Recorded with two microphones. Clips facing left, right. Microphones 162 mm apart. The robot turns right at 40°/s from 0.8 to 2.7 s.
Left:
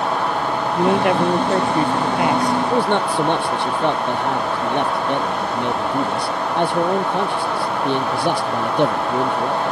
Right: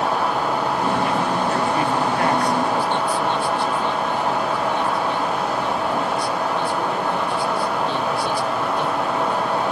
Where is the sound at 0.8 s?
105° left; by 2.6 s 175° left.